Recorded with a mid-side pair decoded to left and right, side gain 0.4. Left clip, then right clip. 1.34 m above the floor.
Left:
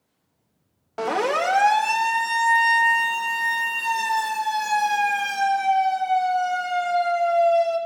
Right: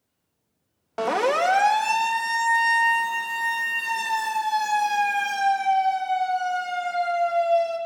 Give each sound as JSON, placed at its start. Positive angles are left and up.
{"t": 1.0, "sound": "a siren", "azimuth_deg": -20, "distance_m": 2.0}